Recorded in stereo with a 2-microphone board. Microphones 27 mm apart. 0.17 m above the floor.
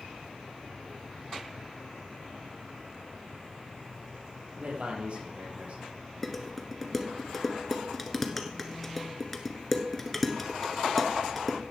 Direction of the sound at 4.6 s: 50° right (ahead or behind).